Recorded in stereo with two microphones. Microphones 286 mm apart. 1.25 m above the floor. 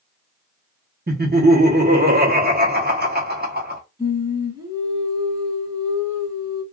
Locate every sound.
1.1 s laughter: 35° right (ahead or behind), 0.9 m
4.0 s singing: 15° right (ahead or behind), 1.4 m